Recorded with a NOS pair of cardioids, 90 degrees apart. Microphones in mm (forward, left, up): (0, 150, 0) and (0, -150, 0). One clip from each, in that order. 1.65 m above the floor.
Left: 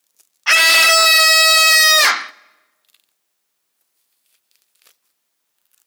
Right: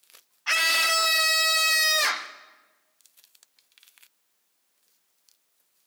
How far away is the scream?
About 0.8 m.